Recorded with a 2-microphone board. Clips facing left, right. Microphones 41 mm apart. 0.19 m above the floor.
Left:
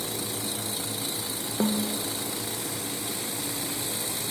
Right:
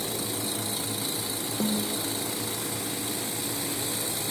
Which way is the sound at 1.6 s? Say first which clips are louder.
Left 2 dB; 20° left (ahead or behind).